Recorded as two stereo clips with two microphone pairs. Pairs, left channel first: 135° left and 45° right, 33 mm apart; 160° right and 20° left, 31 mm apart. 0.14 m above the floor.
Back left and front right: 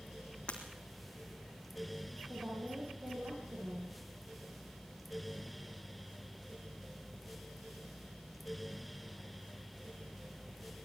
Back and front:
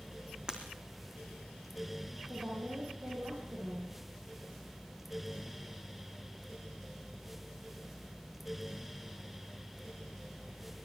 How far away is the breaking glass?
About 3.5 m.